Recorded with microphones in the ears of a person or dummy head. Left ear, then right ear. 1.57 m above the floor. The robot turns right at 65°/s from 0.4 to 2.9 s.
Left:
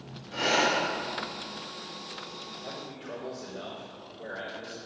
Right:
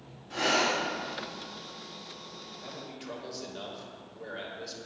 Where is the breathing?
30° right (ahead or behind), 3.5 m; by 0.8 s 50° right (ahead or behind), 3.5 m.